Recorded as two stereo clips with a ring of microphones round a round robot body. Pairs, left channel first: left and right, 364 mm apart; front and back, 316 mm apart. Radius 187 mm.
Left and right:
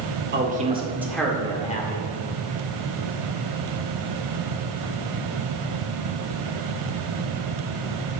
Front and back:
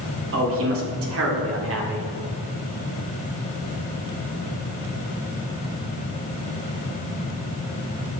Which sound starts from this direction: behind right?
A man speaking, at 0.3 s.